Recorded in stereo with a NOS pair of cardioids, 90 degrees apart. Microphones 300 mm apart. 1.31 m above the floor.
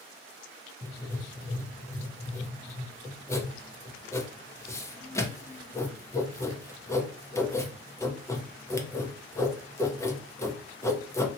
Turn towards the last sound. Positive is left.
turn(degrees=10)